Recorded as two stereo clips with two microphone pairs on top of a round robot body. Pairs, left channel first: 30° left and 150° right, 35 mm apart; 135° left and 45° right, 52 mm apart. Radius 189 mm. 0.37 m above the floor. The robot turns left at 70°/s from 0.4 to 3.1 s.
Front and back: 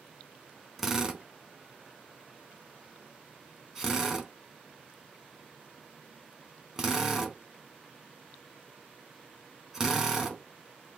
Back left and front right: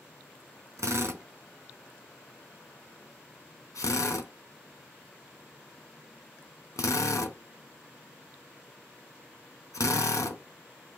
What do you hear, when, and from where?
0.8 s a drill: 60° right, 1.0 m; by 10.4 s 135° left, 1.0 m